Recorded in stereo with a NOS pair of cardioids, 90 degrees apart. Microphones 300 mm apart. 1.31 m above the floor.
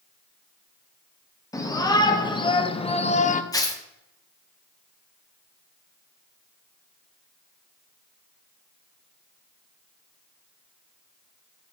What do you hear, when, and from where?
1.5 s a shout: 10° left, 2 m; by 3.4 s 30° left, 0.9 m
3.5 s tearing paper: 10° left, 1.4 m